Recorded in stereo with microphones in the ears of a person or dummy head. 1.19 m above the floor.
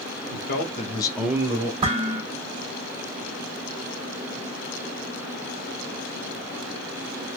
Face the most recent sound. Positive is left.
turn(degrees=-30)  # may be behind; listen again after turning